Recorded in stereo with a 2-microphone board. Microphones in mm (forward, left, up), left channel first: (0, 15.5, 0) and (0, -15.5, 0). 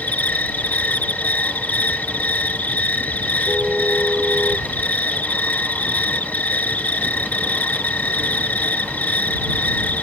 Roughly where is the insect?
Left.